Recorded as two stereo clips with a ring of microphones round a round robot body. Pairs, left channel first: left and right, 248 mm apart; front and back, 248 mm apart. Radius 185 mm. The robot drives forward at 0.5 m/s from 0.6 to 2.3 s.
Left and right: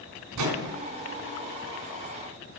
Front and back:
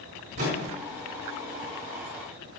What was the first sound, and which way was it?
A microwave, 110° right.